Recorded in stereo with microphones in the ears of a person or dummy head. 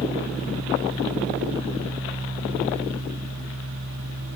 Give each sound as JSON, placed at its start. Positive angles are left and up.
{"t": 0.0, "sound": "a fan", "side_deg": -85, "distance_m": 4.0}